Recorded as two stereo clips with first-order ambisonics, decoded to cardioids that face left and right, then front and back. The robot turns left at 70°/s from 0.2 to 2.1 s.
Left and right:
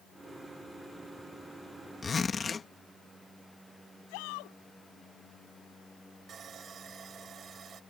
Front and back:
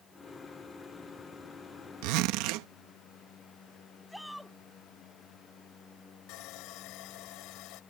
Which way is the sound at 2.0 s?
170° left.